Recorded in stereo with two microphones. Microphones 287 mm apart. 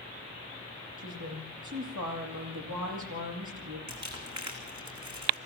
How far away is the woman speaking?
About 9 m.